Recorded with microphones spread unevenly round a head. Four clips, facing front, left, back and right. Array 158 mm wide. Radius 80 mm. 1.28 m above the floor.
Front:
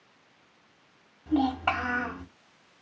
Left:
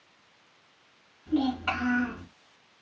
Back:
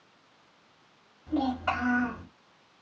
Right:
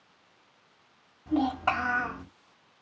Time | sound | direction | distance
1.3 | a child speaking | 45° right | 1.9 m